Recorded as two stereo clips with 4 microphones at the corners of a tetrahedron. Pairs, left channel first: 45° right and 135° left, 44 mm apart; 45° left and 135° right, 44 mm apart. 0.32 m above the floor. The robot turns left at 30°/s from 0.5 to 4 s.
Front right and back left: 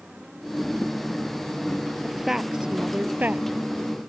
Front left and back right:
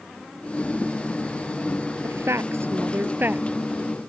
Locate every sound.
2.0 s a woman speaking: 140° right; by 3.5 s straight behind